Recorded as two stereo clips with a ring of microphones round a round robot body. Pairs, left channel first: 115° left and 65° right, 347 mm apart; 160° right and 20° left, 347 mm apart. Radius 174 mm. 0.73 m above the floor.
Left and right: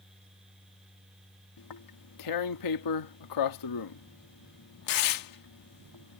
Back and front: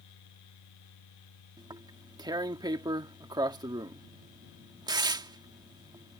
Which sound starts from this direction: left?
Tearing paper, at 1.6 s.